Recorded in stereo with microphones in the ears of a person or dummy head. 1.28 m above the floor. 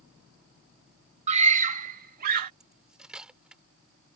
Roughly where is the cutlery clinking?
Centre.